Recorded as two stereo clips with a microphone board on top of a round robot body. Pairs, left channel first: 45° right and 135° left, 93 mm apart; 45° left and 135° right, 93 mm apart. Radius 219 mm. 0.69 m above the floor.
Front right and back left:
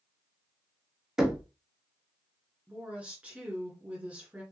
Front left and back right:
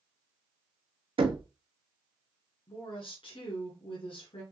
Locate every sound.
1.2 s knocking: 140° right, 1.1 m
2.7 s a woman speaking: 60° left, 2.5 m